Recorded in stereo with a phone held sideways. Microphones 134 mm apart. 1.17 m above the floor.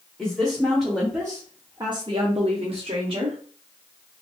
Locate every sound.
0.2 s a woman speaking: centre (ahead or behind), 1.1 m; by 3.4 s 40° right (ahead or behind), 0.9 m